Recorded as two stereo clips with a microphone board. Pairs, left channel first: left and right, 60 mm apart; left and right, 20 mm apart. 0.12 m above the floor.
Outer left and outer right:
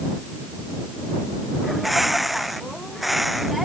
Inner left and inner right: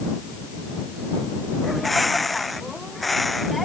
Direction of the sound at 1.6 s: Centre (ahead or behind).